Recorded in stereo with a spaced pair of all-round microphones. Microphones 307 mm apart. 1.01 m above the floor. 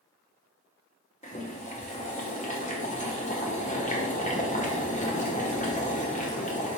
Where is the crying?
I don't hear crying.